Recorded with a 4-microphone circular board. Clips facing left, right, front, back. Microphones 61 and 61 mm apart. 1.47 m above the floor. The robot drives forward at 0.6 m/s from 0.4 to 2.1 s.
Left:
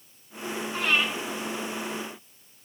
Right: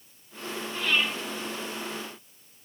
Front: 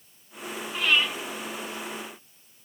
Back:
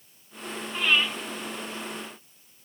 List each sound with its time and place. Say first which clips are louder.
0.7 s breathing: left 1 dB, even; 95° left, 2.5 m; by 1.1 s 100° left, 2.5 m